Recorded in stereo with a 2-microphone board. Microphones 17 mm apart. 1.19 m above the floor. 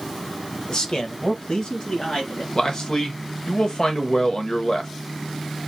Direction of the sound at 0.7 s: 45° left (ahead or behind).